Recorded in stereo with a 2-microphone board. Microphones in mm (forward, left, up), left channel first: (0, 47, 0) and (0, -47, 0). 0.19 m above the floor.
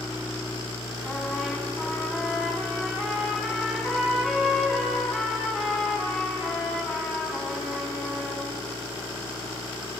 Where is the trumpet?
Centre (ahead or behind), 1.7 m.